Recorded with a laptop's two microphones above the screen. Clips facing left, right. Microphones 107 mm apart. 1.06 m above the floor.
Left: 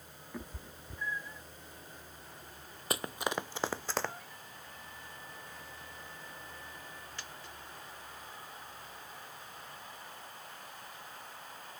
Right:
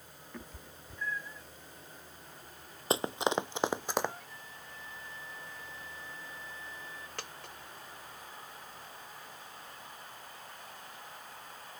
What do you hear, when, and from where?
0.3 s a cat meowing: 10° left (ahead or behind); by 1.5 s 15° left (ahead or behind)
2.9 s running footsteps: 25° right (ahead or behind); by 4.2 s 15° right (ahead or behind)
4.3 s a flute: 60° left (ahead or behind)
7.2 s a dropped coin: 70° right (ahead or behind)